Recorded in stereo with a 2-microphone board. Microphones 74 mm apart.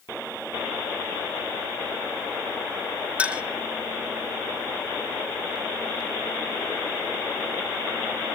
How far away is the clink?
About 1.5 m.